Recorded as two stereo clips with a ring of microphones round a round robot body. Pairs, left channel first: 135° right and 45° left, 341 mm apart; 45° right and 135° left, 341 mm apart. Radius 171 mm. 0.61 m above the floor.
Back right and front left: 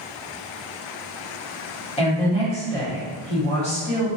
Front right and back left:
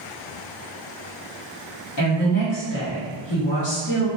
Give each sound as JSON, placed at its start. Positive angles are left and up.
{"t": 2.0, "sound": "a woman speaking", "azimuth_deg": -70, "distance_m": 1.5}